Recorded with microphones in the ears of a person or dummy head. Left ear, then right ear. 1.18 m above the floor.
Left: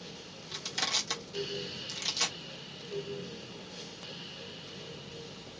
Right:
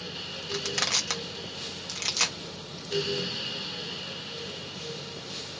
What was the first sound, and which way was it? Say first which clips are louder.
Crushing: right 4 dB; 45° right (ahead or behind).